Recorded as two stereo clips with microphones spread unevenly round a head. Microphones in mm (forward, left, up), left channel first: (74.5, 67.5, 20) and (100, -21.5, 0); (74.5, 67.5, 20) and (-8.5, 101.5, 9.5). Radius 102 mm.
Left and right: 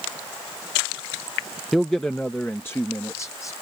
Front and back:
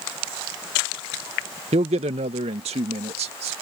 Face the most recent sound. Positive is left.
turn(degrees=180)